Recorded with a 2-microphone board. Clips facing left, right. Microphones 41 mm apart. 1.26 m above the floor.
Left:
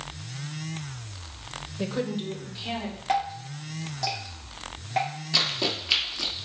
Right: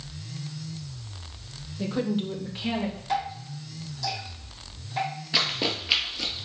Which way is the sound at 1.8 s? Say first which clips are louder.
Right 2 dB; 25° left (ahead or behind).